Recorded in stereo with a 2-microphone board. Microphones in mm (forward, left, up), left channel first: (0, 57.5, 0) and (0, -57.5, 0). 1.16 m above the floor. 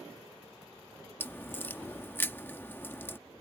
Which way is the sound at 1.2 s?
20° left (ahead or behind).